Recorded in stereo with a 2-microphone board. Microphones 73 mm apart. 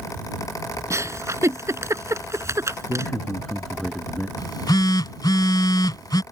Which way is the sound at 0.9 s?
40° right (ahead or behind).